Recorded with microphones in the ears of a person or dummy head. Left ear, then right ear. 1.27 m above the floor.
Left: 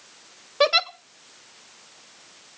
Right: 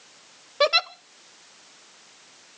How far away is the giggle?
About 0.6 m.